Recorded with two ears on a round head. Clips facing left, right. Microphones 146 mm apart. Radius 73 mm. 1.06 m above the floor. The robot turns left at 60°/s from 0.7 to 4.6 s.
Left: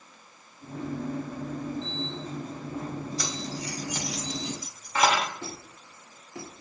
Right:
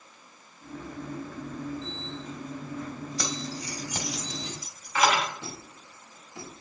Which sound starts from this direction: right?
Keys jangling, at 3.2 s.